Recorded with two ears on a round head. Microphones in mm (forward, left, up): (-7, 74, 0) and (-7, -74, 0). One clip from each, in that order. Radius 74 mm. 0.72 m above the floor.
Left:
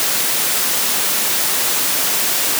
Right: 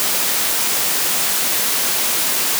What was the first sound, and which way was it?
Only background noise.